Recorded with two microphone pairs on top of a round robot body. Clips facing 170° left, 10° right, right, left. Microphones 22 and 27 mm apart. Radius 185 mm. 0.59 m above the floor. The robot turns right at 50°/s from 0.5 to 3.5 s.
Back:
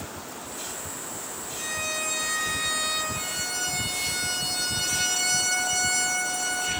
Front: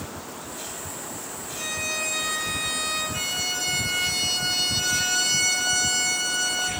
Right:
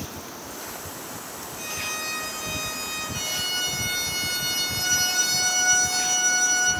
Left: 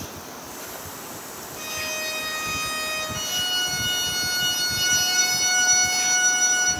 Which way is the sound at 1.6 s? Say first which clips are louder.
Front 2 dB, left 2 dB; 35° left.